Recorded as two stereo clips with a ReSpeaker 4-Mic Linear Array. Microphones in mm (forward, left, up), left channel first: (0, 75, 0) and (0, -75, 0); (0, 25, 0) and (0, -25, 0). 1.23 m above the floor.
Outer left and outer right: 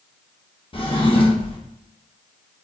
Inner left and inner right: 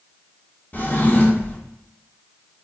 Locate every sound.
0.7 s a drawer: 35° left (ahead or behind), 0.7 m